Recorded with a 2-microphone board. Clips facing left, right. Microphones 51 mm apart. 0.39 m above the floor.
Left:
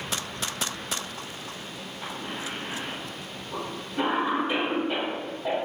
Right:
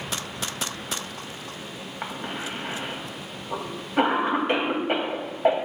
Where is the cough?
60° right (ahead or behind), 2.5 m.